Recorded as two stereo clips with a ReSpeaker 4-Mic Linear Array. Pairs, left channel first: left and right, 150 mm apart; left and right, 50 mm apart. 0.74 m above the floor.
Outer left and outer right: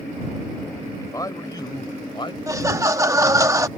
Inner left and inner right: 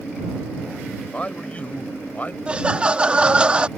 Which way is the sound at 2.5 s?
20° right (ahead or behind).